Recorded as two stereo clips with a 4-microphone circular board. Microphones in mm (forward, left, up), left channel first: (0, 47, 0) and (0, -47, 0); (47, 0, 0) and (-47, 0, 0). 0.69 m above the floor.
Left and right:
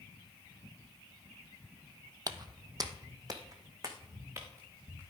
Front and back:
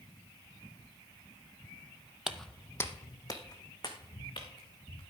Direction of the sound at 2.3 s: 100° right.